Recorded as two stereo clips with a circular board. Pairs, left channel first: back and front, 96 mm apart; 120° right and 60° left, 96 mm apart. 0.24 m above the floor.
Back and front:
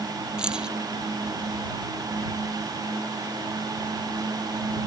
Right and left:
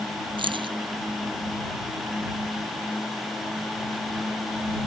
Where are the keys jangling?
80° left.